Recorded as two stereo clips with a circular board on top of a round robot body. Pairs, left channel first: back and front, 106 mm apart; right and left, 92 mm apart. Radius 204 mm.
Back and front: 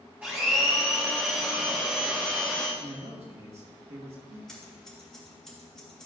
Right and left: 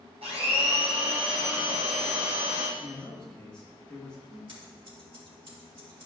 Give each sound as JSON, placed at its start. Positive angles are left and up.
{"t": 0.2, "sound": "a blender", "azimuth_deg": 75, "distance_m": 1.2}
{"t": 2.8, "sound": "a man speaking", "azimuth_deg": -10, "distance_m": 1.8}
{"t": 4.5, "sound": "scissors", "azimuth_deg": 95, "distance_m": 2.0}